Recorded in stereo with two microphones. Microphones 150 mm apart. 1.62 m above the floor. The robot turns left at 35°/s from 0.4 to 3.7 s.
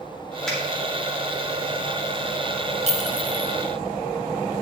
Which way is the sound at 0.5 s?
5° left (ahead or behind).